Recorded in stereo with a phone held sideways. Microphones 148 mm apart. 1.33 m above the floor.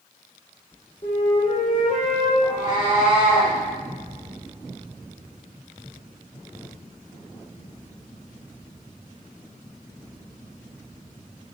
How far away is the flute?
About 5 m.